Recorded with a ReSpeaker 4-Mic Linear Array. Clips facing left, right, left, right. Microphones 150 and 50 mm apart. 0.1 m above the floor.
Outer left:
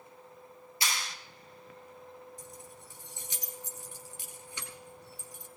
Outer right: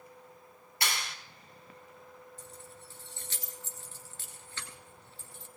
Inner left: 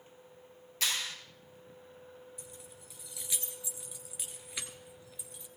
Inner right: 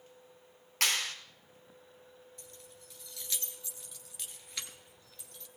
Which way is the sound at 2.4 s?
15° left (ahead or behind).